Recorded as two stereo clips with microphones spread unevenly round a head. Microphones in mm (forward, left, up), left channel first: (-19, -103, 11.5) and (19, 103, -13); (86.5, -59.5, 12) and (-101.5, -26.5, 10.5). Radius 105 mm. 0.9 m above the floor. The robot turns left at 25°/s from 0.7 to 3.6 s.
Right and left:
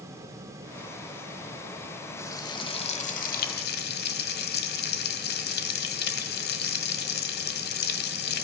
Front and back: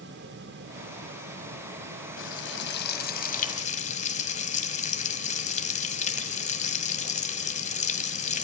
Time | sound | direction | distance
2.2 | frying | 25° right | 1.8 m